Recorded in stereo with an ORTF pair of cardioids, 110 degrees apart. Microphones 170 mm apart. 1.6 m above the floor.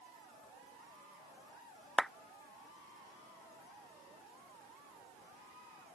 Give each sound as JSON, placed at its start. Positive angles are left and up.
{"t": 2.0, "sound": "a clap", "azimuth_deg": 5}